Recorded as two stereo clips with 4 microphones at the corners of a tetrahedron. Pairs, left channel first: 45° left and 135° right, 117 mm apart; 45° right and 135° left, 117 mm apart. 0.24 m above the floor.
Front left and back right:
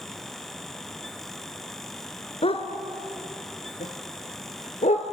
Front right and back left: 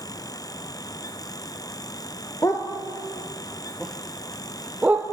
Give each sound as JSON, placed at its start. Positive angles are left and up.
{"t": 2.4, "sound": "a dog barking", "azimuth_deg": 15, "distance_m": 1.9}